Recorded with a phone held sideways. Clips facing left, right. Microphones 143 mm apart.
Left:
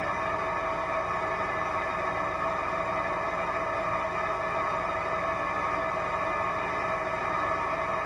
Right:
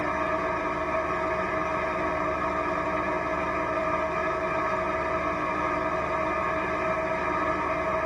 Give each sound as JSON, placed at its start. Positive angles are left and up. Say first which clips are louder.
{"t": 0.0, "sound": "an engine running", "louder": "right 3 dB", "side_deg": -85, "distance_m": 1.5}